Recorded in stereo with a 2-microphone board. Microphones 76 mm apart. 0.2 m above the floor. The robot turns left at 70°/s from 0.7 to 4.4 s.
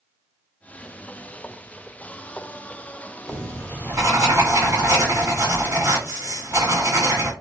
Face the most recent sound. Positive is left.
turn(degrees=-95)